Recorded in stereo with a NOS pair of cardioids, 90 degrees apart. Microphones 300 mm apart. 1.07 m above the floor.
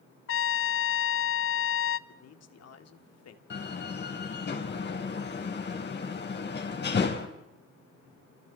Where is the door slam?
35° left, 4.5 m.